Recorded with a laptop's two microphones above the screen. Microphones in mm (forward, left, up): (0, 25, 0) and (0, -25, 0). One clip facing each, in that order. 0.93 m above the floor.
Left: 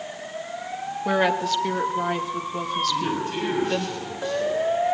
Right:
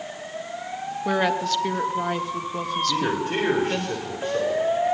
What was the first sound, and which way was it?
A woman speaking, 5° left (ahead or behind).